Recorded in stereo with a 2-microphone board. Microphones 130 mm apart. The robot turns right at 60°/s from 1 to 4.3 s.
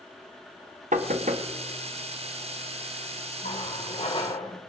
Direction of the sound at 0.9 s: 85° right.